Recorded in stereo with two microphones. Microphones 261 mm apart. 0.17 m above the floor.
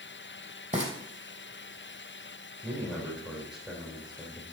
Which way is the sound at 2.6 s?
Centre (ahead or behind).